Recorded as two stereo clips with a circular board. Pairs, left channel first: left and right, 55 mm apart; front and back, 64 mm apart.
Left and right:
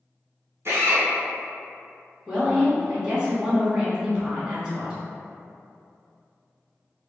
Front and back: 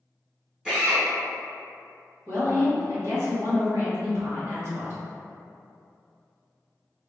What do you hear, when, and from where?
0.7 s a drill: 100° right, 1.6 m
2.3 s a woman speaking: 165° right, 1.8 m